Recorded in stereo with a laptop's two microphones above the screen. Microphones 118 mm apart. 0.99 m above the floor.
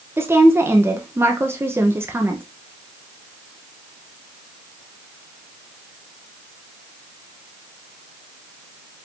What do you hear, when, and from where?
0.2 s a woman speaking: 20° right (ahead or behind), 0.8 m